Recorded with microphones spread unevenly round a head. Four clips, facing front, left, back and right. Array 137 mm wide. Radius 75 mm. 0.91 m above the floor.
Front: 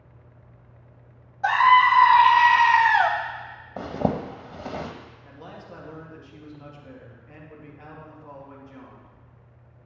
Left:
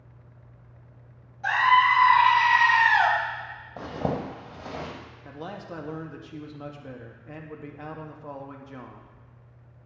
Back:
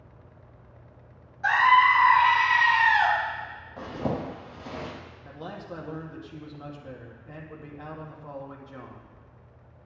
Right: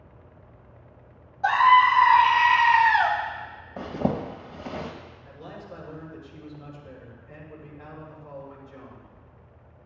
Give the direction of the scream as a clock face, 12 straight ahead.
1 o'clock.